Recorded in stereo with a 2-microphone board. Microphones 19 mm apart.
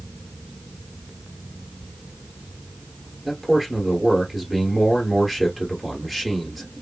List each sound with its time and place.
3.2 s a man speaking: centre (ahead or behind), 1.8 m